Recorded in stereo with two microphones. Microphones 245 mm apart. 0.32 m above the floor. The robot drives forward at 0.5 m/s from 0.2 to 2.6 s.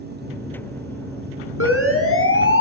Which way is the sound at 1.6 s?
65° left (ahead or behind).